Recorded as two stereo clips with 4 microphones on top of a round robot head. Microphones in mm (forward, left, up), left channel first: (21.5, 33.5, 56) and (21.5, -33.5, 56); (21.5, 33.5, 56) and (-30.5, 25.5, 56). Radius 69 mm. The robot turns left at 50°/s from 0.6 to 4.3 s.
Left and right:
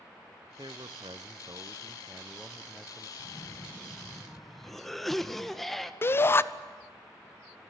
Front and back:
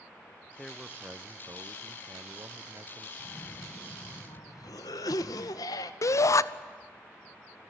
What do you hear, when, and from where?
0.6 s a man speaking: 80° right, 0.5 m; by 3.1 s 155° left, 0.5 m
3.2 s a cough: 60° left, 1.0 m; by 5.9 s straight ahead, 1.0 m
6.0 s a shout: 35° left, 0.9 m